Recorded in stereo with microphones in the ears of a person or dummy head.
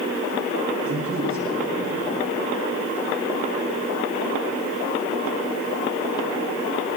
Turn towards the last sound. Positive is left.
turn(degrees=-45)  # may be behind; listen again after turning